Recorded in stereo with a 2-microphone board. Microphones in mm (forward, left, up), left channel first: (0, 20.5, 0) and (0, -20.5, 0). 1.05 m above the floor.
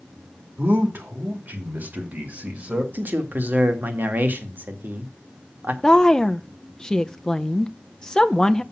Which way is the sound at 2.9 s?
50° right (ahead or behind).